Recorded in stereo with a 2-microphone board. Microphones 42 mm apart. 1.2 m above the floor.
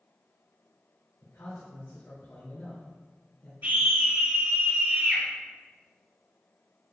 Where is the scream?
50° right (ahead or behind), 2.0 m.